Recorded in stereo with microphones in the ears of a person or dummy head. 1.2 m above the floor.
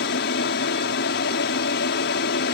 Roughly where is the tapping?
I don't hear tapping.